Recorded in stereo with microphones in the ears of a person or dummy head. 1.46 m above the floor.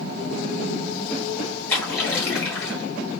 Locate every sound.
1.7 s a splash: 15° left (ahead or behind), 2 m